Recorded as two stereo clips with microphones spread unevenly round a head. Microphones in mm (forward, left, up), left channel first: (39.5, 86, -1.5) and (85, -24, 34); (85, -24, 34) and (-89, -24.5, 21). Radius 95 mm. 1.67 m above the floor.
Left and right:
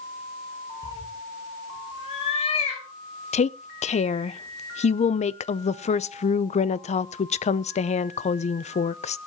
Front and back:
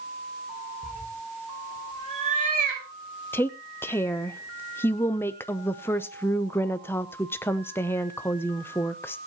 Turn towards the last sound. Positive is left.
turn(degrees=75)